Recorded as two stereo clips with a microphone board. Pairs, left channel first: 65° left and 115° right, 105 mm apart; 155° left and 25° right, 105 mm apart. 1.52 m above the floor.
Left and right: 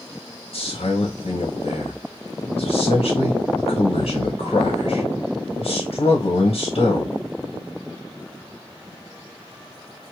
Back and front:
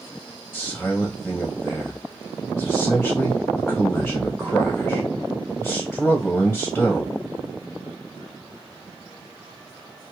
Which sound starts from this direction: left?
A man speaking, at 0.5 s.